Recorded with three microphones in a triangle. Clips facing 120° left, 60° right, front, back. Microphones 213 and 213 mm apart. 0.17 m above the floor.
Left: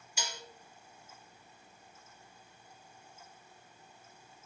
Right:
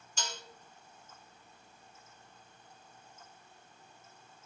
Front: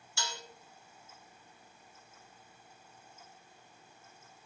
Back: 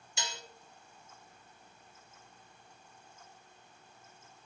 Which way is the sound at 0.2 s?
175° left.